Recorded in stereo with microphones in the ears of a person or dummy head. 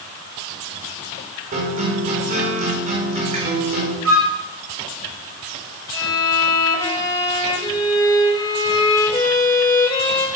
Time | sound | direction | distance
1.5 | a guitar | 45° right (ahead or behind) | 4.5 m
4.0 | a flute | 80° right | 4.5 m
5.9 | a violin | 20° left (ahead or behind) | 4.5 m